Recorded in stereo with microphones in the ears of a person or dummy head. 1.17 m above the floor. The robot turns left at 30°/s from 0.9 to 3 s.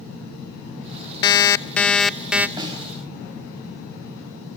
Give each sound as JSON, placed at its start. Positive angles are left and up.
{"t": 1.2, "sound": "an alarm clock", "azimuth_deg": 25, "distance_m": 0.5}
{"t": 2.6, "sound": "a snare drum", "side_deg": -25, "distance_m": 5.5}